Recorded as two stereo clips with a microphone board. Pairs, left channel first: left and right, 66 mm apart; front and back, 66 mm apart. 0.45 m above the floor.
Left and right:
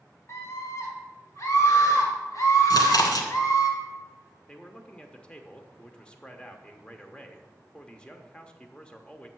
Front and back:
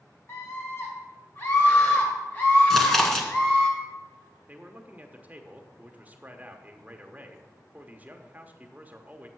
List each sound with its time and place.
0.3 s a scream: 45° left, 4 m; by 3.7 s 70° left, 3.5 m
2.7 s chewing: 85° left, 1.3 m
4.5 s a man speaking: 150° left, 0.9 m